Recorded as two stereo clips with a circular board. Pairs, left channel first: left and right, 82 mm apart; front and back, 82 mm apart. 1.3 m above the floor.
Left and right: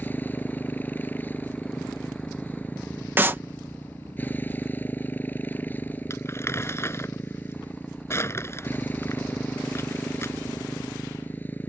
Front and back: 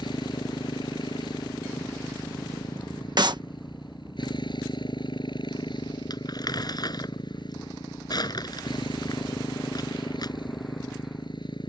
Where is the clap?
155° right.